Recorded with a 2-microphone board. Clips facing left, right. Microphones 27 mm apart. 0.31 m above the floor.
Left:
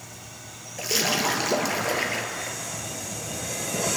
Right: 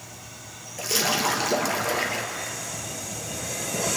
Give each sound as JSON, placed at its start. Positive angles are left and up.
{"t": 0.8, "sound": "a splash", "side_deg": 10, "distance_m": 2.5}